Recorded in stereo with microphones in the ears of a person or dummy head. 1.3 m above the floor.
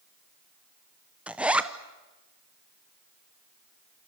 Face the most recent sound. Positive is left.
turn(degrees=0)  # may be behind; listen again after turning